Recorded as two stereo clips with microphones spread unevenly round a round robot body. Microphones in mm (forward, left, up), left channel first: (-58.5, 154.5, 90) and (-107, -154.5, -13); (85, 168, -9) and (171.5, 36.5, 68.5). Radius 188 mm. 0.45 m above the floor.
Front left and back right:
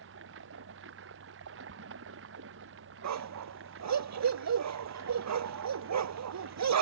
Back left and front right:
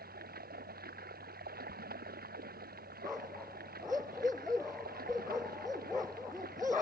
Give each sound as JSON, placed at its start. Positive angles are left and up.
{"t": 0.0, "sound": "running water", "azimuth_deg": -40}
{"t": 3.0, "sound": "a dog barking", "azimuth_deg": -135}